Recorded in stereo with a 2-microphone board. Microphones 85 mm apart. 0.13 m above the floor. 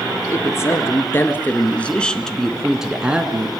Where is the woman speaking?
35° left (ahead or behind), 2.5 m; by 3.5 s 20° right (ahead or behind), 1.8 m.